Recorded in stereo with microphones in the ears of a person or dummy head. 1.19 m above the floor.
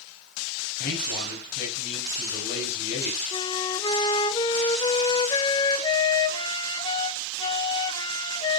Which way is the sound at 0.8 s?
50° left (ahead or behind).